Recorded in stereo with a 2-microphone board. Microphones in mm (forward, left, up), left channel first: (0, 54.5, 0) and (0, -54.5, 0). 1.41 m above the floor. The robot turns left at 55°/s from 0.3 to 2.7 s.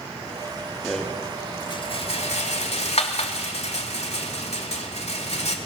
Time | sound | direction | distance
0.8 | a rattle | centre (ahead or behind) | 3 m